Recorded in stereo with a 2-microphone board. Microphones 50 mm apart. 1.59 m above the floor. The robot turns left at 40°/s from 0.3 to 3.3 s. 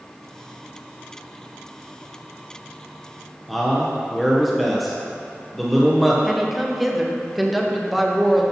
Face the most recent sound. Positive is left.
turn(degrees=0)  # may be behind; listen again after turning